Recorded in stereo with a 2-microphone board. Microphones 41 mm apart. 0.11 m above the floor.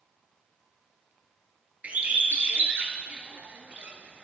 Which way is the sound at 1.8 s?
40° right (ahead or behind).